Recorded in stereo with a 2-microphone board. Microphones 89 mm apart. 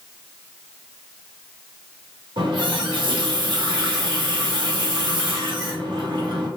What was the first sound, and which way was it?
A running tap, 75° right (ahead or behind).